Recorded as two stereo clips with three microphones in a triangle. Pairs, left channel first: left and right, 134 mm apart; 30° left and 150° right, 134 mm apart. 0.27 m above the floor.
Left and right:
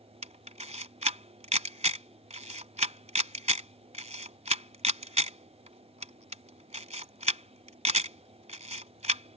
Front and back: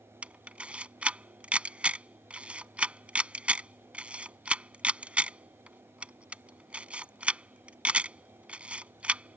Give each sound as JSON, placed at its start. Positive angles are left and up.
{"t": 0.2, "sound": "a camera shutter", "azimuth_deg": -70}